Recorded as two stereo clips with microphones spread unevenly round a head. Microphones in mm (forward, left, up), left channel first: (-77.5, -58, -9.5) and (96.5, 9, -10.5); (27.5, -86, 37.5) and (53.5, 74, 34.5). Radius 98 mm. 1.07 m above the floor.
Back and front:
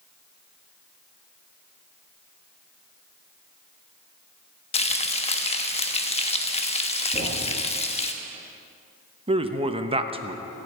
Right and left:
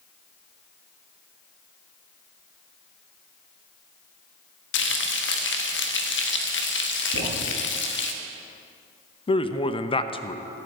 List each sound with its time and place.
4.7 s frying: 100° right, 1.3 m
7.1 s a thud: 80° right, 4.5 m
9.3 s a man speaking: 40° right, 0.8 m